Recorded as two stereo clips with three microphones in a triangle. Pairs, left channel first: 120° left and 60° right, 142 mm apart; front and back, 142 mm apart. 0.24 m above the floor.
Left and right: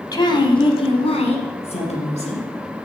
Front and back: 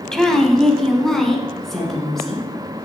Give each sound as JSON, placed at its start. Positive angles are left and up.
{"t": 0.1, "sound": "a woman speaking", "azimuth_deg": 85, "distance_m": 1.4}